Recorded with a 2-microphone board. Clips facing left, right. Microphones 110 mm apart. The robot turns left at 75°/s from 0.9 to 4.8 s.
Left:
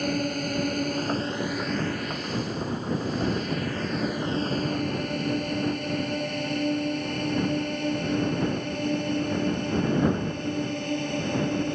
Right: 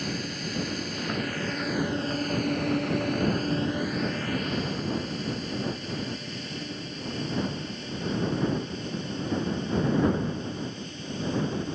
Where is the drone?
50° left (ahead or behind); by 11.8 s 60° left (ahead or behind).